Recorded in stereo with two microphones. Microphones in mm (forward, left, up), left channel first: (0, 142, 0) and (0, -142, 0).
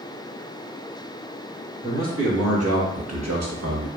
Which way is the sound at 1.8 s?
45° right (ahead or behind).